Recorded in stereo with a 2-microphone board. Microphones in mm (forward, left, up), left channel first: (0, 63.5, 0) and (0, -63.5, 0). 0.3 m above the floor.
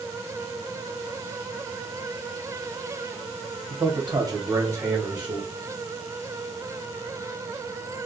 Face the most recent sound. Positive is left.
turn(degrees=-10)  # may be behind; listen again after turning